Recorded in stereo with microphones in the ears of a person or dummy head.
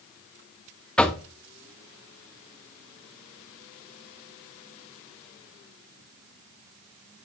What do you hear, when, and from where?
1.0 s knocking: 5° left (ahead or behind), 1.1 m